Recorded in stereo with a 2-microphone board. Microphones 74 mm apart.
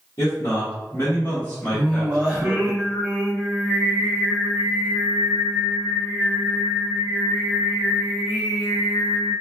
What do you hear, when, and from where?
0.2 s a man speaking: 45° left (ahead or behind), 1.1 m; by 2.7 s centre (ahead or behind), 1.3 m
1.7 s singing: 15° right (ahead or behind), 0.9 m